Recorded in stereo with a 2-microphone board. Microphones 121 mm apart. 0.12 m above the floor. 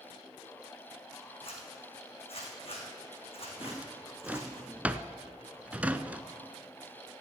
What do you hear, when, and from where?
1.4 s a zipper: 55° left (ahead or behind), 3 m
3.6 s a drawer: 10° right (ahead or behind), 0.5 m